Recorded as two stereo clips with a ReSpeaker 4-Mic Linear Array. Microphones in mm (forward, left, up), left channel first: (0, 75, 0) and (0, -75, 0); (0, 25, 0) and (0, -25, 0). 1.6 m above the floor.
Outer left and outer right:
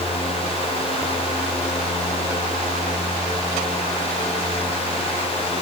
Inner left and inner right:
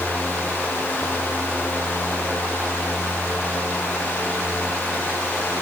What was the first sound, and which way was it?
Only background noise.